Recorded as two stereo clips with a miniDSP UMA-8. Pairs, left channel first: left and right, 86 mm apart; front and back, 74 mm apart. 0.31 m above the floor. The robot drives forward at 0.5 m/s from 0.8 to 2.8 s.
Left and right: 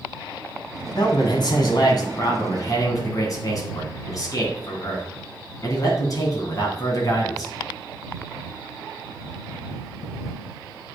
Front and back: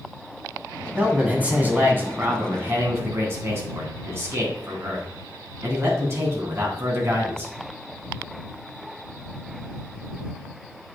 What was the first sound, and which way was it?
A man speaking, 110° left.